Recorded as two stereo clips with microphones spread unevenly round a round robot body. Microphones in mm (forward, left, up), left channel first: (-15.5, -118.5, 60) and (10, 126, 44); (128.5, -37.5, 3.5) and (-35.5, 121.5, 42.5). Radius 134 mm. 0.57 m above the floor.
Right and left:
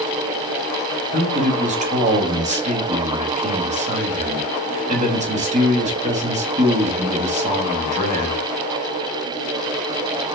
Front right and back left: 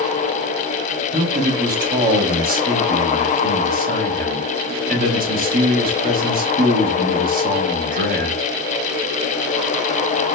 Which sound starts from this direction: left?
A man speaking, at 1.1 s.